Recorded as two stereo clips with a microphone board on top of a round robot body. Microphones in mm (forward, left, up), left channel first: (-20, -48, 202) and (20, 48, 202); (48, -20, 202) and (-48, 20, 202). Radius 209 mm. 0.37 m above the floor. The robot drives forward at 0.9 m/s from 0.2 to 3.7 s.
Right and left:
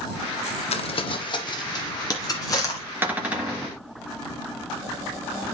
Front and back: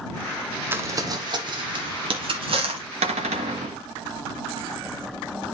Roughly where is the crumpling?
Behind right.